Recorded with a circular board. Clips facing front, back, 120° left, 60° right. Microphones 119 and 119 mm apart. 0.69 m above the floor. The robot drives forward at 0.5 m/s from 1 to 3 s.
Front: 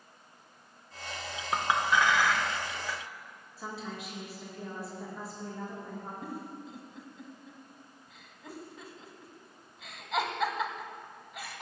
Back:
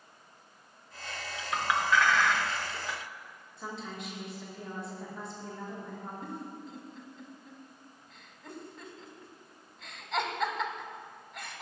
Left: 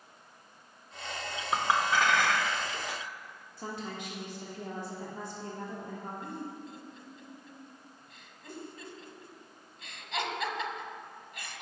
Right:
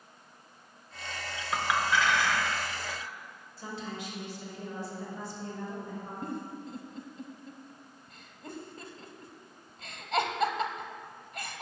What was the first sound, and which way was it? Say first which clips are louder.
A clink: even, left 1 dB; 60° left.